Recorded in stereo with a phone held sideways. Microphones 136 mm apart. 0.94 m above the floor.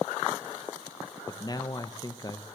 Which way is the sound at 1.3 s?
30° left (ahead or behind).